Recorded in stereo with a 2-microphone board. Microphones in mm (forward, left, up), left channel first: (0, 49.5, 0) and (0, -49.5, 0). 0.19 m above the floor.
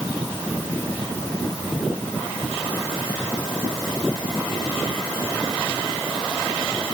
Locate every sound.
Only background noise.